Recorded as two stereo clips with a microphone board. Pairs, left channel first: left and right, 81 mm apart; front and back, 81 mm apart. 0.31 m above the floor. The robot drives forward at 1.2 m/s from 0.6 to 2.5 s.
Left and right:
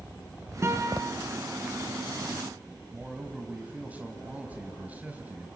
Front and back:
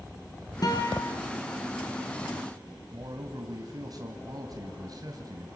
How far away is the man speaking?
About 2 m.